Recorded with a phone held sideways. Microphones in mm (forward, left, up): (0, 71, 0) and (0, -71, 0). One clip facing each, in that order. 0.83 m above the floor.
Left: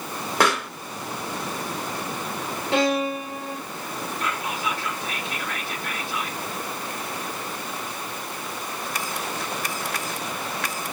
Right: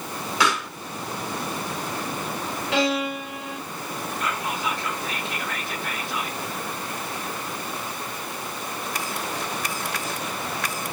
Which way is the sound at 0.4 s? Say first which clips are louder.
Left 2 dB; 55° left (ahead or behind).